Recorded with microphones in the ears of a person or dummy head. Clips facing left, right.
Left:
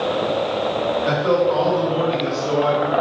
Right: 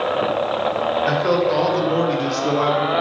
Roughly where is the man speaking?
Centre.